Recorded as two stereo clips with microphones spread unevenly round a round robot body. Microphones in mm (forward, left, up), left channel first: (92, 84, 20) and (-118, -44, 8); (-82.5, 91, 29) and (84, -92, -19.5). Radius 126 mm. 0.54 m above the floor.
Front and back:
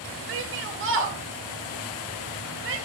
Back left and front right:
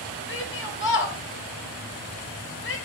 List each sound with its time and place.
0.3 s a shout: straight behind, 3.5 m